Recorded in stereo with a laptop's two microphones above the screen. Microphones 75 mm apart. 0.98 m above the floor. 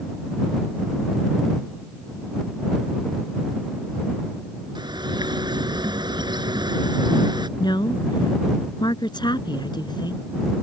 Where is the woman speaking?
80° left.